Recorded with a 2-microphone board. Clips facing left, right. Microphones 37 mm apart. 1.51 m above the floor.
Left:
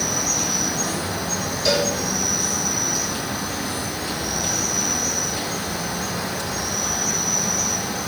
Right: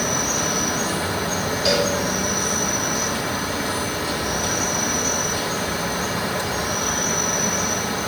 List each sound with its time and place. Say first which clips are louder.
0.0 s an insect: right 2 dB; 55° right (ahead or behind), 3 m
1.6 s a cowbell: even; 10° right (ahead or behind), 8 m